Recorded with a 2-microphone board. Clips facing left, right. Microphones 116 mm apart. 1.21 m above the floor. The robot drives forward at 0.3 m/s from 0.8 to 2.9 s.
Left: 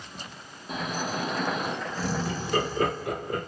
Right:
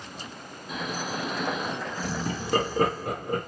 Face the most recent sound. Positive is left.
turn(degrees=-40)  # may be behind; listen again after turning